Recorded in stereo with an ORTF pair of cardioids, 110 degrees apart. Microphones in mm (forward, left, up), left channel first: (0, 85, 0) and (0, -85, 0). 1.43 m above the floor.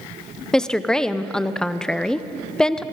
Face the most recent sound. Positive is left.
turn(degrees=5)